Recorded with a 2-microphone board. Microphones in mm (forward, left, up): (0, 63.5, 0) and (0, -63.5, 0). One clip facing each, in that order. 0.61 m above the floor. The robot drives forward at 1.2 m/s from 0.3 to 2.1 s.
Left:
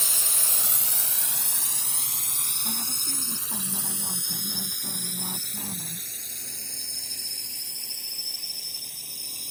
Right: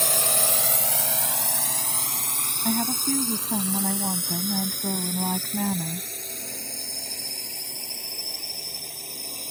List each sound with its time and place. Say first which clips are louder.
0.0 s a drone: right 12 dB; 60° right (ahead or behind); by 9.5 s 55° right (ahead or behind)
2.6 s a woman speaking: right 14 dB; 75° right (ahead or behind)